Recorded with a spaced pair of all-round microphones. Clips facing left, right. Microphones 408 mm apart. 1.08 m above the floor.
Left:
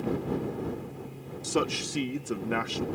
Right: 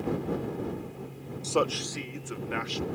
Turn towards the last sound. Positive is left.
turn(degrees=65)  # may be behind; listen again after turning